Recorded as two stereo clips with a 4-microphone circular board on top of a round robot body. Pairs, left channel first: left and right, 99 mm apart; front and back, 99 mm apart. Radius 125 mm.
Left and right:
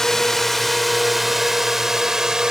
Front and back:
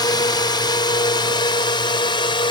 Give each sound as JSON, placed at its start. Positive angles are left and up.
{"t": 0.0, "sound": "a drone", "azimuth_deg": 5}